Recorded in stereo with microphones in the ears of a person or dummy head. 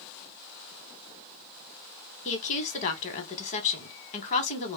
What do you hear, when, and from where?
2.2 s a woman speaking: 35° left (ahead or behind), 1.0 m